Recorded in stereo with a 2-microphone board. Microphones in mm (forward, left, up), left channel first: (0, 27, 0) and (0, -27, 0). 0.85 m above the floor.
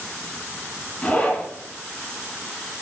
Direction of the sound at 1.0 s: 20° left (ahead or behind).